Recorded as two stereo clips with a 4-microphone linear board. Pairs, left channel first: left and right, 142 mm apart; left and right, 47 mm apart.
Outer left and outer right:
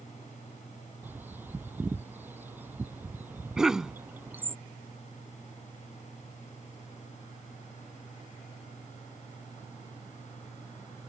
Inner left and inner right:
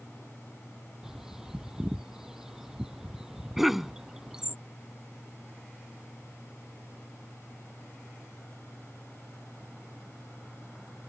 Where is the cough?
5° right (ahead or behind).